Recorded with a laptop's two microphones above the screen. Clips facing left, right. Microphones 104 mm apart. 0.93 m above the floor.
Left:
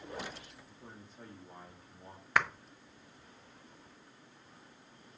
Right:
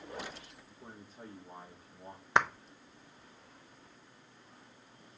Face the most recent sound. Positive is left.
turn(degrees=-25)  # may be behind; listen again after turning